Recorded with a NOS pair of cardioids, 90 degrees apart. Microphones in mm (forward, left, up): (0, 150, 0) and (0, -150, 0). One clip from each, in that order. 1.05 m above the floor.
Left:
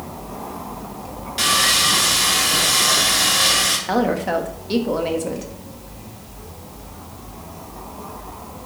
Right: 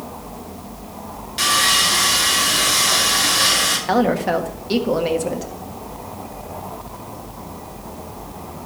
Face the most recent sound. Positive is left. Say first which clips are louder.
# right 2 dB
turn(degrees=-10)